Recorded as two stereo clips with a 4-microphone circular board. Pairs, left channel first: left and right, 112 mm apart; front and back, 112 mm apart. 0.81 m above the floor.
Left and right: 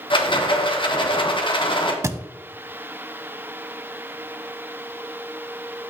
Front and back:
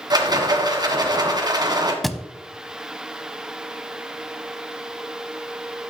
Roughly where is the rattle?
Behind left.